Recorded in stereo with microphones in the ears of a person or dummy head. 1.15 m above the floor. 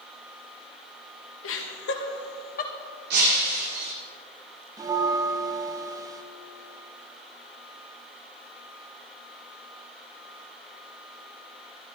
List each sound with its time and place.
1.4 s laughter: 65° left (ahead or behind), 1.6 m; by 2.7 s 45° left (ahead or behind), 1.4 m
3.1 s breaking glass: 55° right (ahead or behind), 2 m
4.8 s a bell: 15° right (ahead or behind), 0.5 m